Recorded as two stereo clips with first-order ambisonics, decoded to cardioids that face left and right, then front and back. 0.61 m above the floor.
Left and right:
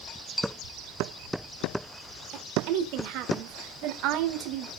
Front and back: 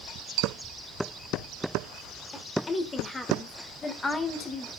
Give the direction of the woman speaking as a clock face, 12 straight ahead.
2 o'clock.